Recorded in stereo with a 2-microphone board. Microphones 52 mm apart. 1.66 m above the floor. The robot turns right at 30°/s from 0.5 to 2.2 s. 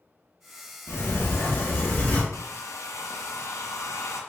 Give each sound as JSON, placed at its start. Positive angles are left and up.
{"t": 0.9, "sound": "a sliding door", "azimuth_deg": 90, "distance_m": 0.9}
{"t": 2.3, "sound": "a hair dryer", "side_deg": 75, "distance_m": 0.6}